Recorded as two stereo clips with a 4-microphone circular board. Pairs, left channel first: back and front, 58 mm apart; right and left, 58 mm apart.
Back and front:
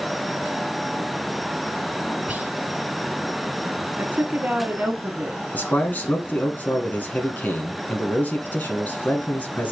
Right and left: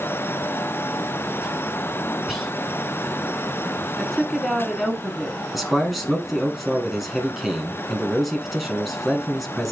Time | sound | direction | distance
2.3 | whispering | straight ahead | 1.1 m
4.0 | a woman speaking | 10° right | 1.1 m
5.5 | a man speaking | straight behind | 1.2 m